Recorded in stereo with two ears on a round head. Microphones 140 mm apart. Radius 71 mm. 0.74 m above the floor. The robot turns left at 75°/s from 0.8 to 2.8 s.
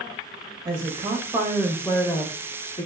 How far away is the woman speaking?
About 1.0 m.